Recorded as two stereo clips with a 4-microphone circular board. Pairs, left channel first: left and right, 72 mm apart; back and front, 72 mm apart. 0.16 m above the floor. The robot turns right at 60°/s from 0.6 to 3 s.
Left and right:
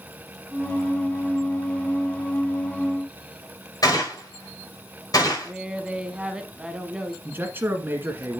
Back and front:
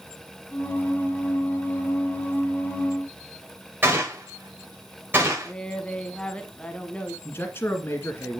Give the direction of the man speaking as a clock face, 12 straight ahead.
5 o'clock.